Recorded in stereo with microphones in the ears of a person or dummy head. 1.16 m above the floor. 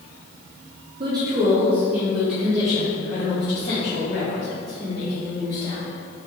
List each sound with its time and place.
1.0 s a woman speaking: 25° right (ahead or behind), 0.8 m; by 5.8 s 40° left (ahead or behind), 3 m